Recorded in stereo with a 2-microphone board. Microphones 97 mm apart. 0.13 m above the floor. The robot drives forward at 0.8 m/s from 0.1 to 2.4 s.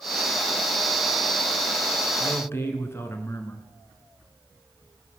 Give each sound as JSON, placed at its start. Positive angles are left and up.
{"t": 2.2, "sound": "a man speaking", "side_deg": 25, "distance_m": 1.3}